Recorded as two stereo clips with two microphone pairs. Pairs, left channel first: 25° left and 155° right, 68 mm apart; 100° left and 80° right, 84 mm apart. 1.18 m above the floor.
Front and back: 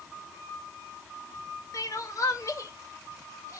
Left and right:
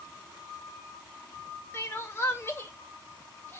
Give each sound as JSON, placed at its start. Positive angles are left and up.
{"t": 1.7, "sound": "crying", "azimuth_deg": 45, "distance_m": 0.8}